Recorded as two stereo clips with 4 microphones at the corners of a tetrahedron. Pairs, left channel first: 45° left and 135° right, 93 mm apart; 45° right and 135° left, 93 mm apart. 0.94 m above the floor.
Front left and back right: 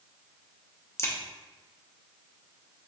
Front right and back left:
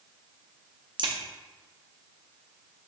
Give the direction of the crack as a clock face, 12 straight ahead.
8 o'clock.